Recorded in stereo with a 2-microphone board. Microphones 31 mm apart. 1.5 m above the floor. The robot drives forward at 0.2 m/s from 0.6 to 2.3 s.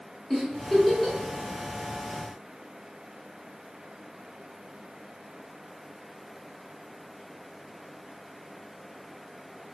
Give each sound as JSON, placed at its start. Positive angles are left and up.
{"t": 0.3, "sound": "a giggle", "side_deg": 15, "distance_m": 0.8}